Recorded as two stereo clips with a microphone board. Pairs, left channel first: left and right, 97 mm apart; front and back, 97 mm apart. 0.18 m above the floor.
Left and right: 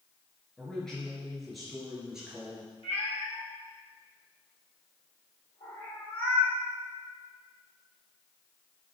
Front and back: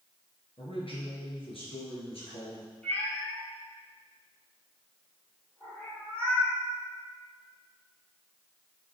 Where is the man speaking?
10° left, 3 m; by 2.7 s 10° right, 3.5 m.